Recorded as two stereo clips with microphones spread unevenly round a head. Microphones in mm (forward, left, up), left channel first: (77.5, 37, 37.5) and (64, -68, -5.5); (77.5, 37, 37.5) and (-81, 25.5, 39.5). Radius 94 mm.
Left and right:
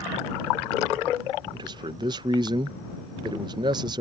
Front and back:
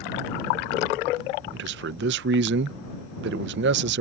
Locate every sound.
1.5 s a man speaking: 155° right